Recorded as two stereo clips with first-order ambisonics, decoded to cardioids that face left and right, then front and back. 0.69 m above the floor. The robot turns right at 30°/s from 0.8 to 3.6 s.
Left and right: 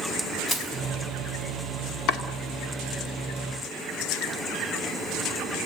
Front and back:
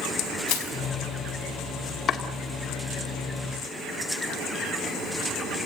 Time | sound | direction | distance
0.5 | crushing | 20° left | 4.5 m
2.1 | chopping | 60° left | 1.9 m